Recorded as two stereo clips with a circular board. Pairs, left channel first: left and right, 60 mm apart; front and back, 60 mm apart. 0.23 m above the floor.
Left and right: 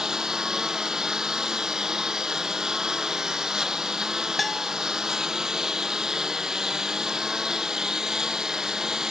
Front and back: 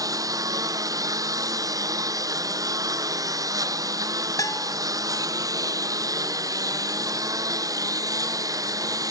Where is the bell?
Straight ahead.